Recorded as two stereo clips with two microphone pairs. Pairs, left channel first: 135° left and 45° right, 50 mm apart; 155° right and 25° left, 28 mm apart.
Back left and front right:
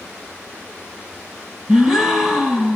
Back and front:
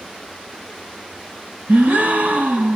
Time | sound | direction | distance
1.7 | a gasp | 30° left | 1.7 m